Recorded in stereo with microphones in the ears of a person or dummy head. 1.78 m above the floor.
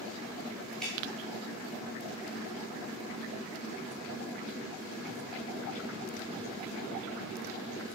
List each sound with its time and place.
0.8 s dripping: 5° left (ahead or behind), 2 m